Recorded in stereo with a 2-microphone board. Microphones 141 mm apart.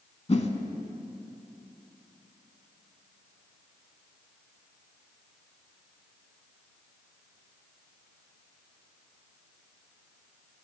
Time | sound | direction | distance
0.3 | a whoosh | 45° left (ahead or behind) | 0.6 m